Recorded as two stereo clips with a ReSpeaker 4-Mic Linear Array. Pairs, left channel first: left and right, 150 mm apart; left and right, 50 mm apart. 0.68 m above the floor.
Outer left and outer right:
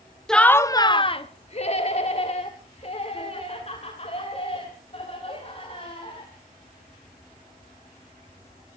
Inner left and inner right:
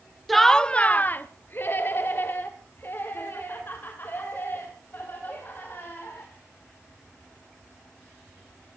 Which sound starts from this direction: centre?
Laughter, at 0.3 s.